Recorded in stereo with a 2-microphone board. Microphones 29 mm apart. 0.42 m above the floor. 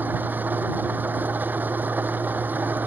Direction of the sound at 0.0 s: 80° right.